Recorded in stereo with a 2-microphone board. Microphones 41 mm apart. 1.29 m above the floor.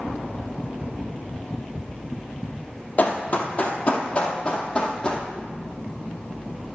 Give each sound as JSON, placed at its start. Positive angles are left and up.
{"t": 3.0, "sound": "running footsteps", "side_deg": 40, "distance_m": 1.7}